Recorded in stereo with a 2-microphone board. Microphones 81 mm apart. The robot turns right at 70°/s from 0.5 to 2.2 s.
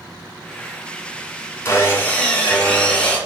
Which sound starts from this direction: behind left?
Sawing, at 1.6 s.